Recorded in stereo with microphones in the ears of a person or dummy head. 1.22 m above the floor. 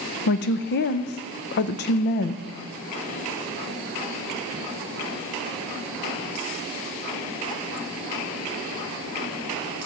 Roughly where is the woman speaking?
Left.